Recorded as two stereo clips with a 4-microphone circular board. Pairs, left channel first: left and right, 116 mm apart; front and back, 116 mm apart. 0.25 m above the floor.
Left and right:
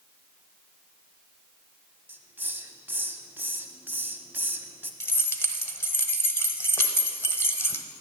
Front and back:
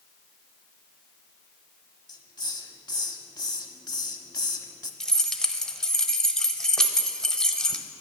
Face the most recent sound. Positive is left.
turn(degrees=75)